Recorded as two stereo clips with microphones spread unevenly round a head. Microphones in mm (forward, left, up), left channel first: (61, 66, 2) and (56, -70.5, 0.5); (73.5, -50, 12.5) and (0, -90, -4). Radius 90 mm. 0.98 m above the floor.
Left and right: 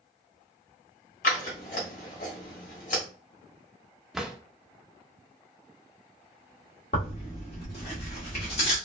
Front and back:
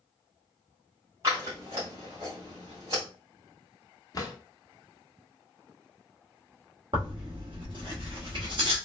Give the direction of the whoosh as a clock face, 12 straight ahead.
No whoosh in this recording.